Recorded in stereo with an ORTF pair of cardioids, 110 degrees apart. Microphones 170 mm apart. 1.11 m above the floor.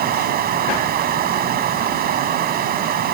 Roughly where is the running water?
Ahead right.